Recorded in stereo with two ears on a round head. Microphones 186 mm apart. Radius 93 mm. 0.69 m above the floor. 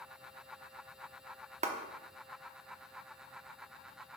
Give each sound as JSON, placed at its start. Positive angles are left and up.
{"t": 1.6, "sound": "a clap", "side_deg": -35, "distance_m": 1.0}